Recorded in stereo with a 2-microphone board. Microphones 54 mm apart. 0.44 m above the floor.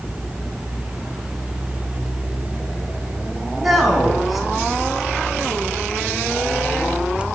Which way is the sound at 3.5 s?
5° right (ahead or behind).